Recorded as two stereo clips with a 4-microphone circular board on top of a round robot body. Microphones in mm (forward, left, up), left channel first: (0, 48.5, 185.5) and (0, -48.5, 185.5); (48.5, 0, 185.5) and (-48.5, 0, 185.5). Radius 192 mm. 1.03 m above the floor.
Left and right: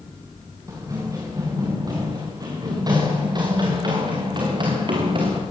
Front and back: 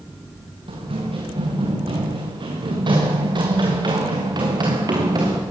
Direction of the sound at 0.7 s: 150° right.